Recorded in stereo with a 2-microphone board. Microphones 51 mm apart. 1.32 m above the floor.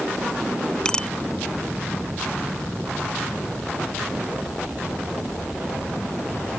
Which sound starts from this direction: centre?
A bicycle bell, at 0.8 s.